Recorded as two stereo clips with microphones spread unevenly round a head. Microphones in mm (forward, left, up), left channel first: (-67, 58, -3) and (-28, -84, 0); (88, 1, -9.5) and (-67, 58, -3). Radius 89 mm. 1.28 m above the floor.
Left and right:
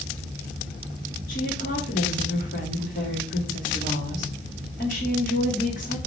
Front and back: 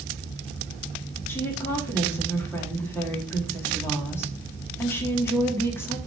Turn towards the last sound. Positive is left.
turn(degrees=55)